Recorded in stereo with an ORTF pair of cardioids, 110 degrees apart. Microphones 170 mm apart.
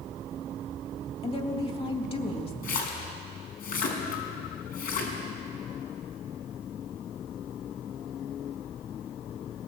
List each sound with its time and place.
1.2 s a woman speaking: 35° left, 3.5 m
2.6 s a splash: 65° left, 5 m